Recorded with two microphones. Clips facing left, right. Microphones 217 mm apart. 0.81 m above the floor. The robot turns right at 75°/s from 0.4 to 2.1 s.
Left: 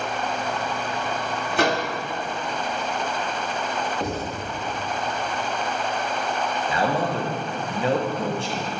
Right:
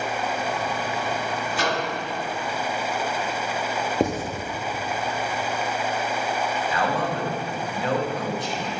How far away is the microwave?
About 1.1 m.